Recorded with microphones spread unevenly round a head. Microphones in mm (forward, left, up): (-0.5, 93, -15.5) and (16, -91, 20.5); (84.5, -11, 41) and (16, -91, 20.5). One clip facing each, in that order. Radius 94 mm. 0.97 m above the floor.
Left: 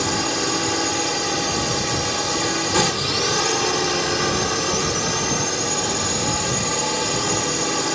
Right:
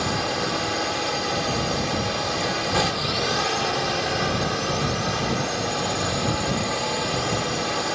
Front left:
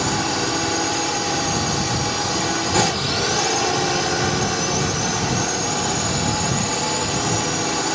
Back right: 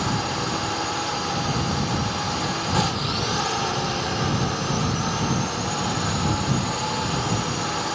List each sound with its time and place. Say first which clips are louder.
0.0 s a drone: left 3 dB, front left 4 dB; 85° left